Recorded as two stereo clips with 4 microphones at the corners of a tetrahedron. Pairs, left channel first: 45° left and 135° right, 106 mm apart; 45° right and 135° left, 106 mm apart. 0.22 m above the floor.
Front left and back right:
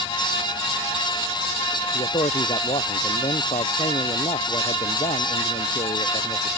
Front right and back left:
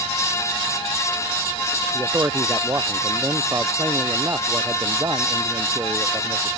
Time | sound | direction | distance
1.9 | a man speaking | 75° left | ?